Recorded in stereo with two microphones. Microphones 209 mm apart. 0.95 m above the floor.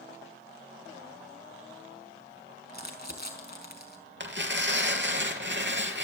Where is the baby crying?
I don't hear a baby crying.